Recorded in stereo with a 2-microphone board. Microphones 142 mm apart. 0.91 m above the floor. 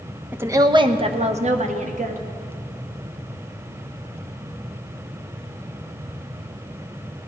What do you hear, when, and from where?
0.3 s a woman speaking: 10° right (ahead or behind), 0.7 m; by 2.2 s 65° right (ahead or behind), 1.4 m